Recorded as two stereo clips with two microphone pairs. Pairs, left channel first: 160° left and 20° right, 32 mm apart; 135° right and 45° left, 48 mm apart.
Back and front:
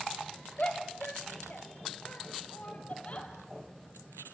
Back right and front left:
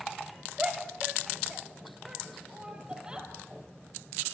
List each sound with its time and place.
0.6 s a shout: 115° left, 3 m